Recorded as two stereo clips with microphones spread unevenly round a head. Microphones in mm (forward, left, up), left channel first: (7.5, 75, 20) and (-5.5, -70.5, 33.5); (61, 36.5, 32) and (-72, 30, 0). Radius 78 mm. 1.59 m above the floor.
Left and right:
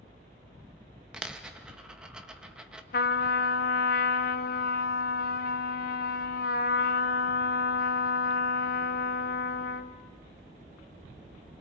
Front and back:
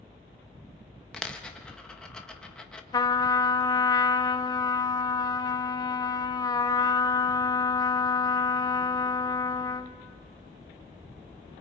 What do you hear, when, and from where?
1.1 s a dropped coin: 30° right, 0.9 m
2.9 s a trumpet: 55° left, 0.7 m